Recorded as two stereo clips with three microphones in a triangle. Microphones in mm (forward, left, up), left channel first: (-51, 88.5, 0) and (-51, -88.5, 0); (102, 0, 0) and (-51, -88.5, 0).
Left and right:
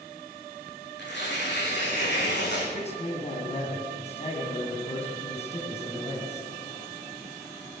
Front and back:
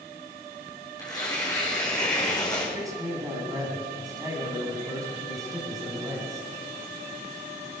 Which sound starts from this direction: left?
Tearing paper, at 1.0 s.